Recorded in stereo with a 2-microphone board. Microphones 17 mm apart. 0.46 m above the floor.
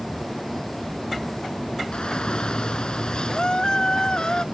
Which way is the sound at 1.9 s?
70° left (ahead or behind).